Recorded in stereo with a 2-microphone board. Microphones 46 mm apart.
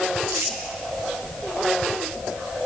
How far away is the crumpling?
About 2 m.